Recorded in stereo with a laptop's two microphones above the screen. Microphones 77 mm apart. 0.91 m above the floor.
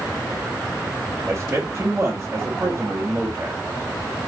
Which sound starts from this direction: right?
A man speaking, at 1.3 s.